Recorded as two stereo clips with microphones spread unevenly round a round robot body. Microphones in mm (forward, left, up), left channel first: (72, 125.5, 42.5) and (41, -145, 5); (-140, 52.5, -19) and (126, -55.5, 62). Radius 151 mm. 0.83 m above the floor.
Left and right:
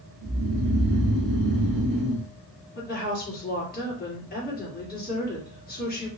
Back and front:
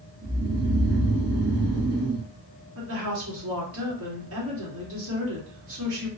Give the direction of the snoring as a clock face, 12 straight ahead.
3 o'clock.